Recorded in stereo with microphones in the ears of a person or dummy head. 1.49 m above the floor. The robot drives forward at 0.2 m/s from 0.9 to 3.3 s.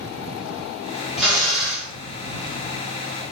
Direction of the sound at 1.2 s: Centre (ahead or behind).